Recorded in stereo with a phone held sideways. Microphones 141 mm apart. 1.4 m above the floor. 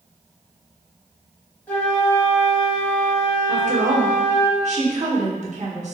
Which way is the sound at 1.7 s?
10° left (ahead or behind).